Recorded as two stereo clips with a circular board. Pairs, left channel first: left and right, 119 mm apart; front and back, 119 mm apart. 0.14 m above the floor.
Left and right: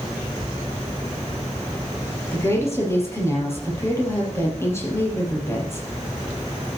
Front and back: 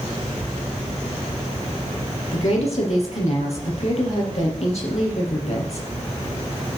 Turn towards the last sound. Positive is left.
turn(degrees=25)